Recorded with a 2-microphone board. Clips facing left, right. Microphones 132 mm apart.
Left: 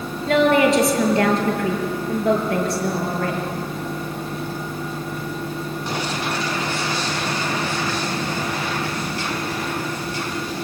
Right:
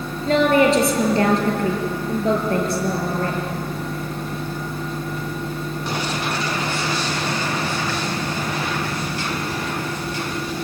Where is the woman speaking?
35° right (ahead or behind), 5.5 m.